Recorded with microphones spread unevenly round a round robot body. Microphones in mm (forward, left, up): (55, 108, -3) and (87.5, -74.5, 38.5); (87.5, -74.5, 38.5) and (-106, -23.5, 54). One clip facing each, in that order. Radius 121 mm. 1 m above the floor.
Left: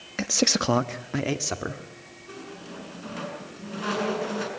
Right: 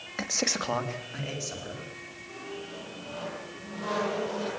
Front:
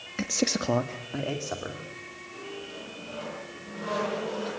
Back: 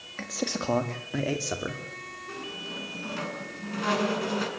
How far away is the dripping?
No dripping in this recording.